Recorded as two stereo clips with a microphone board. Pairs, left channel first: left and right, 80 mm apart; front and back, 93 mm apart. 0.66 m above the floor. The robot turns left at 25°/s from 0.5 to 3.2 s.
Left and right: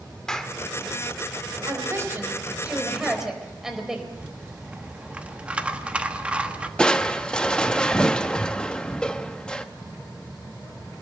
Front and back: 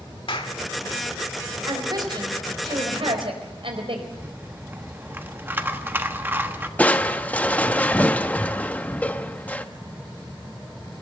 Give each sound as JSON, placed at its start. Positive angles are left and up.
{"t": 0.3, "sound": "a clap", "azimuth_deg": 10, "distance_m": 1.5}
{"t": 1.6, "sound": "a woman speaking", "azimuth_deg": -135, "distance_m": 4.0}
{"t": 4.1, "sound": "a rattle", "azimuth_deg": -145, "distance_m": 1.2}
{"t": 6.8, "sound": "crushing", "azimuth_deg": 35, "distance_m": 0.9}